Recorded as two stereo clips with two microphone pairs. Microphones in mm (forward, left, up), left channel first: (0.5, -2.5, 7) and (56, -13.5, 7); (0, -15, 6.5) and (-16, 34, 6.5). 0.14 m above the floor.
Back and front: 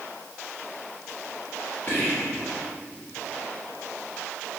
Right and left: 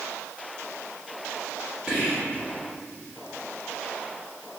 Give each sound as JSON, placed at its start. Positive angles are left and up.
{"t": 1.9, "sound": "whispering", "azimuth_deg": 165, "distance_m": 1.2}